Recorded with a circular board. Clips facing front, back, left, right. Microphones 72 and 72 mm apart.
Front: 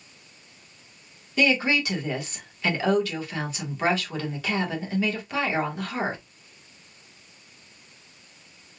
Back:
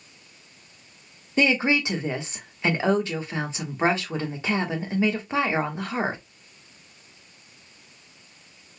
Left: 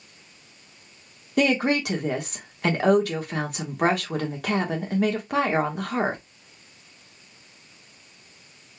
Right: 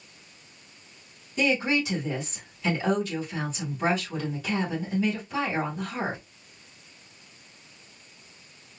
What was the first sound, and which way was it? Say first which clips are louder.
A woman speaking: back 1 dB, left 4 dB; 115° left.